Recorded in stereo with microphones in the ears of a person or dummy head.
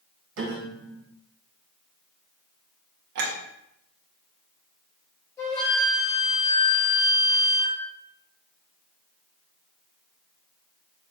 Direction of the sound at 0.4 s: 75° right (ahead or behind).